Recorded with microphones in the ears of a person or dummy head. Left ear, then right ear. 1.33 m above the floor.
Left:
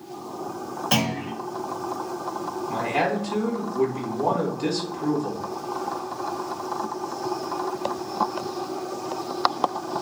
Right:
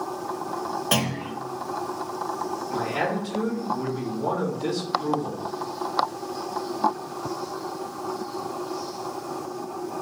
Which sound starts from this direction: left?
A man speaking, at 2.7 s.